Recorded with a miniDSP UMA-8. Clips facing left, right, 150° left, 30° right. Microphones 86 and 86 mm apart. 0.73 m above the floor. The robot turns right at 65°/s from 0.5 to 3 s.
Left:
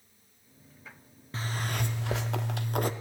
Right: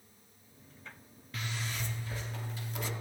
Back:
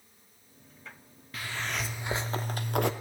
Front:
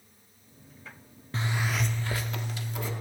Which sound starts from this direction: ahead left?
A zipper, at 1.3 s.